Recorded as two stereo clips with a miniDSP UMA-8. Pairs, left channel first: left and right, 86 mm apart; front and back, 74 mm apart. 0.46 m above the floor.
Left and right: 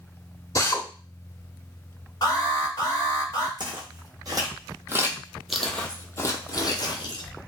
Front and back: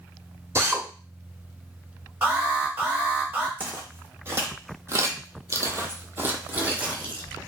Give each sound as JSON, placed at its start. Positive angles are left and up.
{"t": 0.6, "sound": "a drill", "azimuth_deg": 135, "distance_m": 0.7}
{"t": 2.2, "sound": "an alarm", "azimuth_deg": 125, "distance_m": 1.0}
{"t": 3.6, "sound": "footsteps", "azimuth_deg": -115, "distance_m": 1.2}